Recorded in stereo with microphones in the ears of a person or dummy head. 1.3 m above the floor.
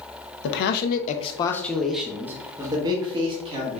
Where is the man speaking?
70° left (ahead or behind), 0.7 m; by 3.8 s 30° right (ahead or behind), 1.5 m.